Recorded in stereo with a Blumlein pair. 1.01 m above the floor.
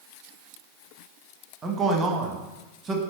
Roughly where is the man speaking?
Ahead.